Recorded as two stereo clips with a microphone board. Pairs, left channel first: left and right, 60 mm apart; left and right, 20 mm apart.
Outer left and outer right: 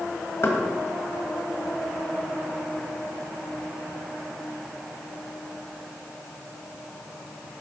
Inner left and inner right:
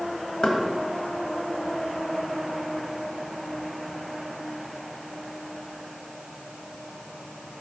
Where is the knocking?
45° left (ahead or behind), 1.5 m.